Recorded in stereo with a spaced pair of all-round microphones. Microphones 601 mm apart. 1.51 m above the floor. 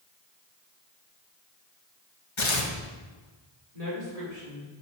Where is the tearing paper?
50° left (ahead or behind), 1.5 m.